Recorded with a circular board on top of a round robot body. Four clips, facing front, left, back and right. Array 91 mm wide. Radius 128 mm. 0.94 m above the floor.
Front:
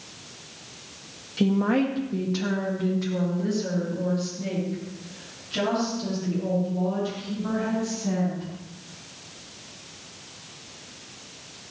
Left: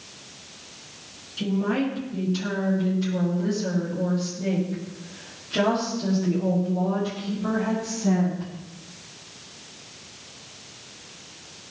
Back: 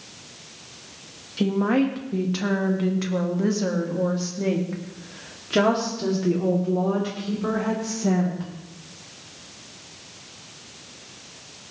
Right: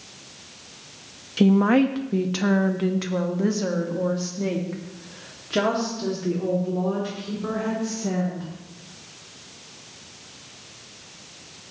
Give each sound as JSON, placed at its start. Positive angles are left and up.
{"t": 1.4, "sound": "a woman speaking", "azimuth_deg": -90, "distance_m": 1.5}